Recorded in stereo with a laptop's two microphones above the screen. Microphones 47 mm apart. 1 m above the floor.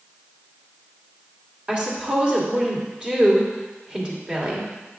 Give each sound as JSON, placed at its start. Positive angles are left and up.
{"t": 1.7, "sound": "a woman speaking", "side_deg": -20, "distance_m": 2.0}